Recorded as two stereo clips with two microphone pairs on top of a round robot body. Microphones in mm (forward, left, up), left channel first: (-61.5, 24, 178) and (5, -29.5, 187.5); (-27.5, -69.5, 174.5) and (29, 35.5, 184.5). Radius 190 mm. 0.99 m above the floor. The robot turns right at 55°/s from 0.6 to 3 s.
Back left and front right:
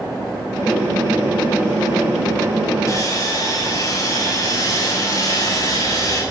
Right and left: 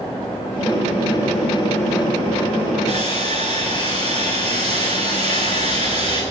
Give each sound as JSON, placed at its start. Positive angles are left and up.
{"t": 2.9, "sound": "sawing", "azimuth_deg": 85, "distance_m": 4.0}